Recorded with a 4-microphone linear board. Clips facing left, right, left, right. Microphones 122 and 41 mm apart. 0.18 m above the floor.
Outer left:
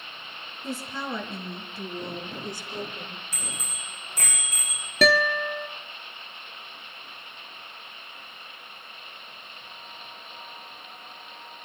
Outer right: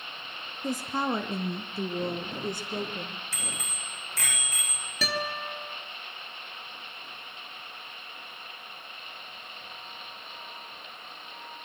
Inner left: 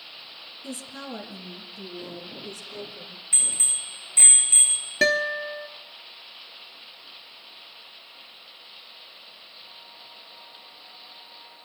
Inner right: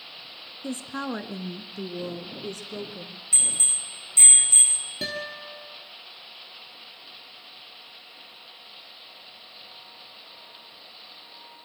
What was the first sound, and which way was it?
A woman speaking, 40° right (ahead or behind).